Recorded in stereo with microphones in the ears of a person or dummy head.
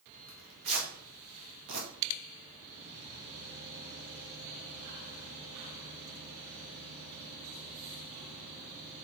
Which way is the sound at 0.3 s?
70° right (ahead or behind).